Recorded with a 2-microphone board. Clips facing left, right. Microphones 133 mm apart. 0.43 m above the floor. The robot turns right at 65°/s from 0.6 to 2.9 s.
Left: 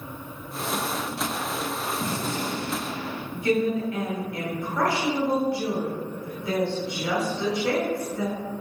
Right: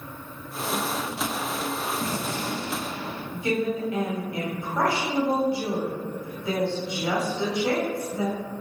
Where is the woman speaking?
25° right (ahead or behind), 1.1 m.